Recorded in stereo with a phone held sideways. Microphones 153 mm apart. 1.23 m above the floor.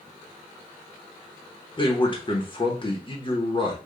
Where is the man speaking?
35° left (ahead or behind), 1.1 m.